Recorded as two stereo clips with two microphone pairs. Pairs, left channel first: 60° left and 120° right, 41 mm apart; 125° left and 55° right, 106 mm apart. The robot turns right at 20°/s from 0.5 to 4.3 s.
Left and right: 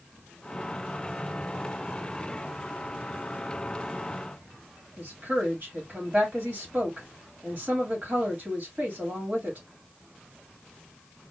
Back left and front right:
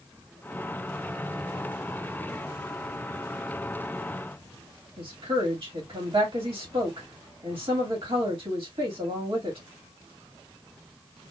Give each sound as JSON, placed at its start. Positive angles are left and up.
{"t": 5.0, "sound": "a woman speaking", "azimuth_deg": -80, "distance_m": 1.6}